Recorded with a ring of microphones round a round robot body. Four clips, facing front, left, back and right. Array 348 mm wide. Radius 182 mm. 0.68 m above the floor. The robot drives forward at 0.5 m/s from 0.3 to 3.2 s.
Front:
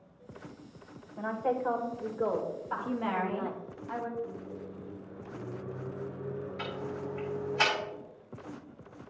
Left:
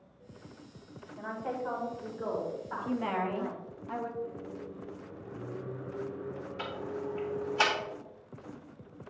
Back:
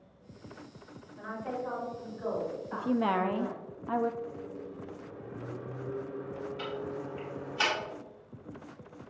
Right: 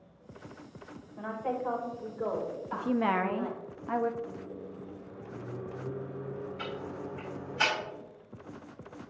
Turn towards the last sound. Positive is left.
turn(degrees=80)